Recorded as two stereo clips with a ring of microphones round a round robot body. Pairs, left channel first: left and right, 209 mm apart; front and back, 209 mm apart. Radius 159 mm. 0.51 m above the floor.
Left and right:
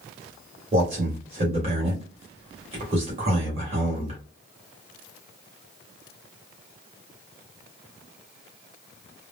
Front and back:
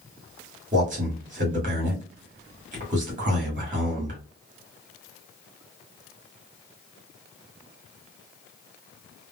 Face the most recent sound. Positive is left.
turn(degrees=-140)